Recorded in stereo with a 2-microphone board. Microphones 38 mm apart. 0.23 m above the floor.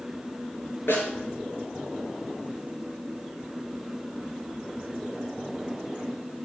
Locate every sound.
0.9 s a snare drum: 75° left (ahead or behind), 3.5 m